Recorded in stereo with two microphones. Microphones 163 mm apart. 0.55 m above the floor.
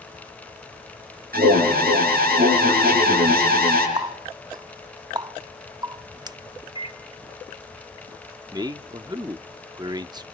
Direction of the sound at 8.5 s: 25° right (ahead or behind).